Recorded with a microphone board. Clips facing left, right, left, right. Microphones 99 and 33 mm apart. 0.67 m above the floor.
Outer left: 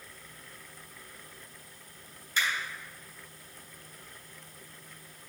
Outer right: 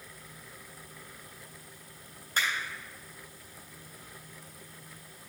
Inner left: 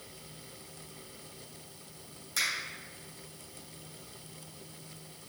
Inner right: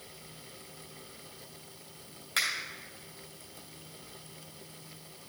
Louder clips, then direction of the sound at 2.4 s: Even, inner right 2 dB; 45° right (ahead or behind).